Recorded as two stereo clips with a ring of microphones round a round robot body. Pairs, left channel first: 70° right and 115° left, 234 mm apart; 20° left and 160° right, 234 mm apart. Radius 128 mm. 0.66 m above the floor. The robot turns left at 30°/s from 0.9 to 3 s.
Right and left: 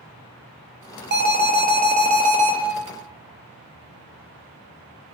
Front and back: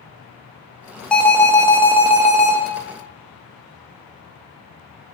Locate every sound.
1.1 s an alarm: 105° left, 1.2 m; by 2.5 s 65° left, 1.2 m